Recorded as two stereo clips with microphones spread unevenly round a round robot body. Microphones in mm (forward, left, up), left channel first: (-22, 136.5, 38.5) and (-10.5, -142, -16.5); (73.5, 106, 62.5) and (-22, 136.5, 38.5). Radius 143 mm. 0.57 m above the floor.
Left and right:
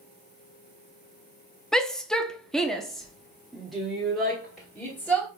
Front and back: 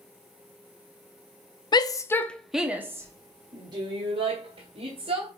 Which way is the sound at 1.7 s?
15° right.